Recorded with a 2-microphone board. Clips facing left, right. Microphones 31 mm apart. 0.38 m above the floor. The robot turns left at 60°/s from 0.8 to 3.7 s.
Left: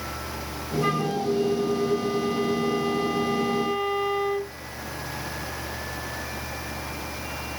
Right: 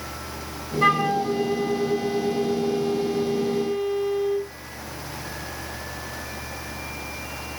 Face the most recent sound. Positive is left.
turn(degrees=90)